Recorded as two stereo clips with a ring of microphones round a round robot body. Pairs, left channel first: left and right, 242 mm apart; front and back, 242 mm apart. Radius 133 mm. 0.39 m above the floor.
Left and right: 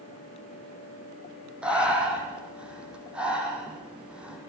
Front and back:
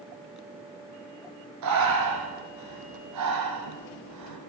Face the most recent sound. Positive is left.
turn(degrees=-175)